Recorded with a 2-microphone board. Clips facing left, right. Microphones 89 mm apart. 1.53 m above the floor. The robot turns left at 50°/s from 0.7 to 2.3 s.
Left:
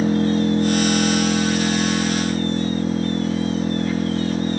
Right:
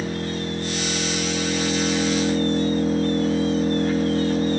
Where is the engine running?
30° left, 1.7 m; by 4.6 s 50° right, 1.7 m.